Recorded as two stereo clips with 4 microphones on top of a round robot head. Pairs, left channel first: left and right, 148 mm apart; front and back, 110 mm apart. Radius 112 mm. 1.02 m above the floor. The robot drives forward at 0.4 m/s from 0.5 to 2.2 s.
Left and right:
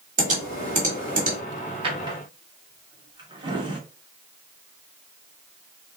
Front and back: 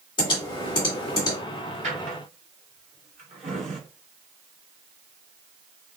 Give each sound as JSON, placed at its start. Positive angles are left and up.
{"t": 0.2, "sound": "typing on a keyboard", "azimuth_deg": -50, "distance_m": 2.0}
{"t": 1.8, "sound": "a drawer", "azimuth_deg": -145, "distance_m": 1.3}